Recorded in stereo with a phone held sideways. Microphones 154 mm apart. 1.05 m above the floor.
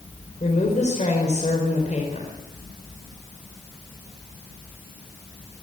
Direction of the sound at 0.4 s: 50° left (ahead or behind).